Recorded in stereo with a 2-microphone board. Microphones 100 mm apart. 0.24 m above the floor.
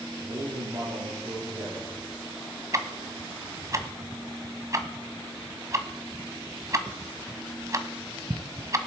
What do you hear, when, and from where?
0.2 s a man speaking: 50° right (ahead or behind), 9 m
2.7 s ticking: 35° right (ahead or behind), 1.3 m